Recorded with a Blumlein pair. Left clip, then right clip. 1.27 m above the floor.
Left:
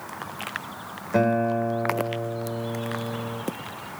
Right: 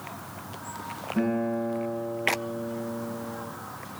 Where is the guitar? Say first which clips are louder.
Left 7 dB; 45° left, 3.5 m.